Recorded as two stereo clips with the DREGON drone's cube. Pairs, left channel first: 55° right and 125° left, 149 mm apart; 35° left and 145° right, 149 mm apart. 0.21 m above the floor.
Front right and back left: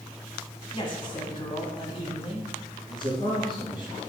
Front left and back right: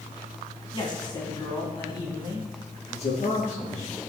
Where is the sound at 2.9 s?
Straight ahead, 3.5 m.